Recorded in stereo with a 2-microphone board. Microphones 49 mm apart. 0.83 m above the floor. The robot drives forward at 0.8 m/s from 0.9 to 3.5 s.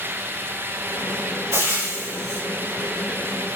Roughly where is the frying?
Right.